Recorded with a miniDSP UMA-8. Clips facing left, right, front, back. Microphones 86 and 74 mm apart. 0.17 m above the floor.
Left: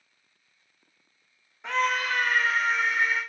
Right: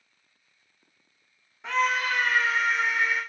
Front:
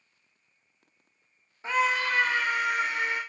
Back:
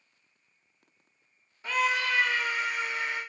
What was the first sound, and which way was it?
A scream, straight ahead.